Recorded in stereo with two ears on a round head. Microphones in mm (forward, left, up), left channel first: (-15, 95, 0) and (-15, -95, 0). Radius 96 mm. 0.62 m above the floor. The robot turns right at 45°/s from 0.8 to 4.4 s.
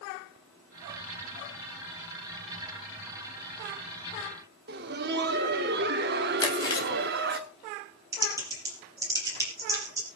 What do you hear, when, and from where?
4.7 s laughter: 50° right (ahead or behind), 1.5 m
6.4 s chewing: 20° left (ahead or behind), 3.5 m
8.1 s typing on a keyboard: 15° right (ahead or behind), 5.5 m